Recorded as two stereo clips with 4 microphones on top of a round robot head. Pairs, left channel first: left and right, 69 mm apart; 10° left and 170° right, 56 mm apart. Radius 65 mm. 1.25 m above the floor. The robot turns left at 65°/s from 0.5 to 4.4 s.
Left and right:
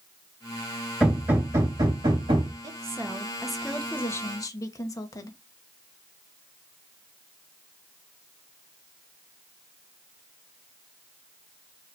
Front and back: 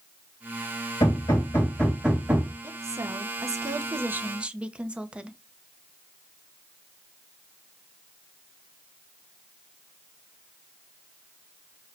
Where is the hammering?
15° right, 3 m; by 2.5 s 110° right, 3 m.